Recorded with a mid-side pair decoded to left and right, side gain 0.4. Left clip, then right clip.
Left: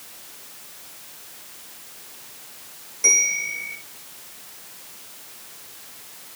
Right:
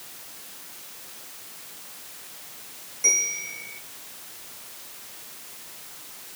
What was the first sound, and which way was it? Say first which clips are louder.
A bell: left 5 dB; 40° left.